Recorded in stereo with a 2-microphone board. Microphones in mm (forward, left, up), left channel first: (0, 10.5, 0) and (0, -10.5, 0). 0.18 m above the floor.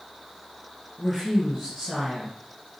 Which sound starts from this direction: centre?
A woman speaking, at 1.0 s.